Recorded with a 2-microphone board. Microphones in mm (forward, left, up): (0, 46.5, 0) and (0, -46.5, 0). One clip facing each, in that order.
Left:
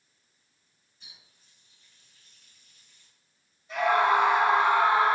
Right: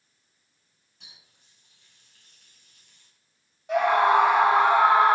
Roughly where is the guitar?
No guitar in this recording.